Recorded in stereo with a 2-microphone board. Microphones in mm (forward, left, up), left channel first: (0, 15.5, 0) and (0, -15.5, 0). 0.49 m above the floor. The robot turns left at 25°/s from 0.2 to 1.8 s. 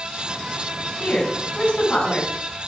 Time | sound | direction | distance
1.0 | a woman speaking | 65° left (ahead or behind) | 5 m